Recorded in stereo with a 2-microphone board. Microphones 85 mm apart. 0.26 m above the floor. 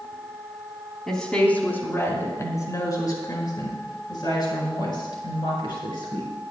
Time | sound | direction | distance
1.1 | a woman speaking | 5° left (ahead or behind) | 2.5 m